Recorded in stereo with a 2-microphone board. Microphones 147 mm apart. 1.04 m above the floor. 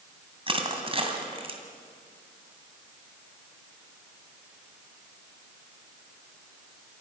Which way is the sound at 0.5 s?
40° right (ahead or behind).